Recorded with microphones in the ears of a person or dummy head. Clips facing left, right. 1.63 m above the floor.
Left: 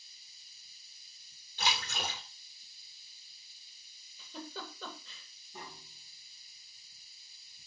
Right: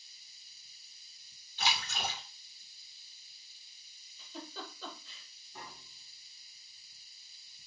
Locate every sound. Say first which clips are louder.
1.6 s a splash: even; 50° left (ahead or behind), 3 m
4.2 s a giggle: left 1 dB; 55° left (ahead or behind), 3 m
5.5 s tapping: left 2 dB; 25° left (ahead or behind), 2 m